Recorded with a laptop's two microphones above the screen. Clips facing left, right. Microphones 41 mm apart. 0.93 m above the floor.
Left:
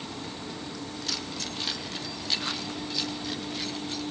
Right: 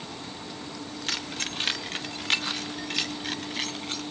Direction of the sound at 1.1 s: 45° right (ahead or behind).